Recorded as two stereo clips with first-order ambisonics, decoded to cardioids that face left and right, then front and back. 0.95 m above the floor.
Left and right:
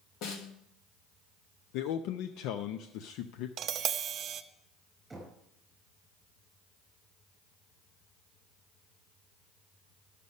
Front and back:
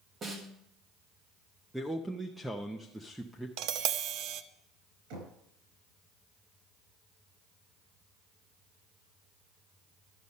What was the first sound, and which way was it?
A snare drum, 115° left.